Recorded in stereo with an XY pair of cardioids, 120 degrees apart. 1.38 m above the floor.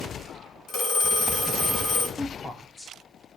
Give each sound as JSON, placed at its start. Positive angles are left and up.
{"t": 0.7, "sound": "a phone ringing", "azimuth_deg": 65, "distance_m": 1.6}
{"t": 2.2, "sound": "a woman speaking", "azimuth_deg": 15, "distance_m": 0.8}